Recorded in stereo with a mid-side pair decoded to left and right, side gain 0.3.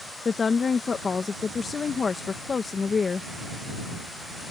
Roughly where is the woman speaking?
Ahead left.